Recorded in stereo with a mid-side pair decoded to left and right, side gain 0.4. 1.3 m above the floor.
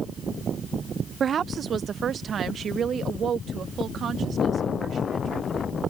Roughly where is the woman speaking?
Ahead right.